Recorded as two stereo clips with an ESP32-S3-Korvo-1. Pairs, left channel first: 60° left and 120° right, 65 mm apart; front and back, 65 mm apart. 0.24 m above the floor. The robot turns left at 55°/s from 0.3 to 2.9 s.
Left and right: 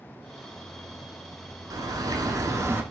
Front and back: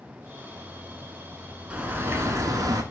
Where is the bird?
105° right, 0.6 m; by 2.8 s 170° right, 0.6 m.